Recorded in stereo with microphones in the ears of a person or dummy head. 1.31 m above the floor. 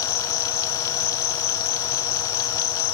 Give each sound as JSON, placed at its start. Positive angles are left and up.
{"t": 0.0, "sound": "an insect", "side_deg": 35, "distance_m": 3.0}